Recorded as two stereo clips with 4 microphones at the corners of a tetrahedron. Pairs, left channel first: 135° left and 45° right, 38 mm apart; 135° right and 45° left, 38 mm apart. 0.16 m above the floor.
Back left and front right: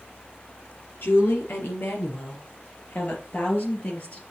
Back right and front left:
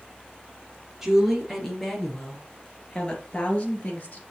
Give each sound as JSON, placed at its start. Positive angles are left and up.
{"t": 1.0, "sound": "a woman speaking", "azimuth_deg": 120, "distance_m": 3.0}